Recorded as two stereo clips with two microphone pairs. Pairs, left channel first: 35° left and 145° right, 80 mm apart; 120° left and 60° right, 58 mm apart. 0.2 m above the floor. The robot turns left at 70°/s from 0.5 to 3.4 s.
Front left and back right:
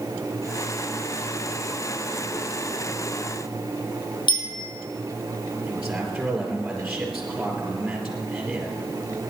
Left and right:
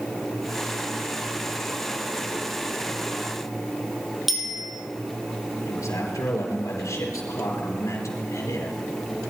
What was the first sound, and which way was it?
A bicycle bell, 30° left.